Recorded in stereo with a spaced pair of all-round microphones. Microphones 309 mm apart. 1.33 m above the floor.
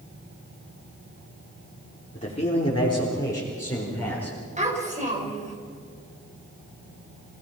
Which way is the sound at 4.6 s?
25° right (ahead or behind).